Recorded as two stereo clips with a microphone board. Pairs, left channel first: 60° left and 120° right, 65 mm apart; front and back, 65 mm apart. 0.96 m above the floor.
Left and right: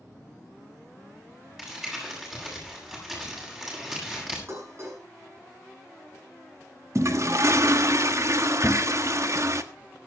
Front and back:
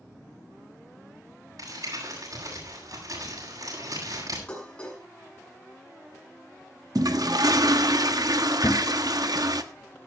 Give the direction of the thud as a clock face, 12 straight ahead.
2 o'clock.